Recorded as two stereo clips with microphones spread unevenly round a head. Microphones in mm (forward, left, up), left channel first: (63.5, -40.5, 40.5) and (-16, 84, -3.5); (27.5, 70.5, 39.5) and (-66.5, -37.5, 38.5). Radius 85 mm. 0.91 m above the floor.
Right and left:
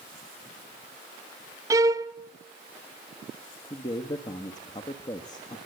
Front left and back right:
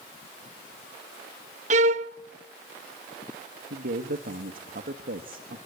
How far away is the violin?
About 0.6 m.